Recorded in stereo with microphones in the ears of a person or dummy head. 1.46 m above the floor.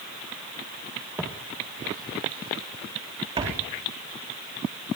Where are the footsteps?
10° right (ahead or behind), 1.9 m; by 3.7 s 35° right (ahead or behind), 4 m.